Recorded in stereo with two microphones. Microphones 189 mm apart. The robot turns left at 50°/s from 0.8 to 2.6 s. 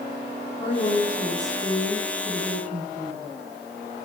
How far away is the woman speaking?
About 9.5 m.